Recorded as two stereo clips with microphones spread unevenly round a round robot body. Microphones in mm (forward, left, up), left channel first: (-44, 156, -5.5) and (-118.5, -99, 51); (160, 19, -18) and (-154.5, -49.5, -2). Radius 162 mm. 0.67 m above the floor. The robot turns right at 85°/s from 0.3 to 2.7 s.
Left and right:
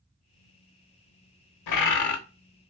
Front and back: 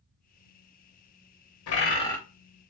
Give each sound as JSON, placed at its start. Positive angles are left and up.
{"t": 1.7, "sound": "a bird", "azimuth_deg": 55, "distance_m": 0.7}